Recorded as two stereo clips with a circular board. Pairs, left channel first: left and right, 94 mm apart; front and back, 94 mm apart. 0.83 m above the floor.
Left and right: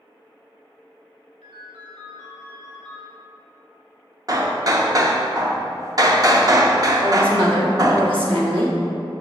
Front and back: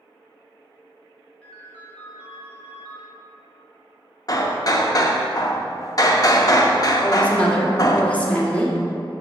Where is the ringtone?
75° right, 2 m.